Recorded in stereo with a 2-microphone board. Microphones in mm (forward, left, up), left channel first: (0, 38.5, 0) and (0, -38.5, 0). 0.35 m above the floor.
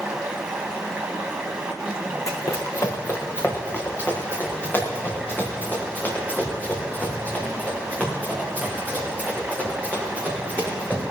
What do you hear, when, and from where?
0.0 s running water: 10° right (ahead or behind), 1.7 m
2.3 s running footsteps: 45° left (ahead or behind), 1.8 m; by 11.0 s 20° left (ahead or behind), 10 m